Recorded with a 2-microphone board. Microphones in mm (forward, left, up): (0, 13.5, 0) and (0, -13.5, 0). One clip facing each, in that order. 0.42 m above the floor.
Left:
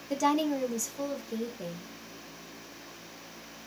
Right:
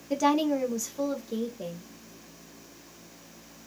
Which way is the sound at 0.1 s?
5° right (ahead or behind).